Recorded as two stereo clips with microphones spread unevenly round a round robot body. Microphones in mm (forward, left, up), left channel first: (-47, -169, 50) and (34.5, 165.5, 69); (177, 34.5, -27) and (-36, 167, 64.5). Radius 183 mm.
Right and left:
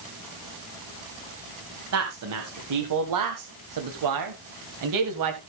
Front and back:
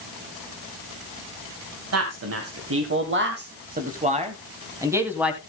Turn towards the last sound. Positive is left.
turn(degrees=50)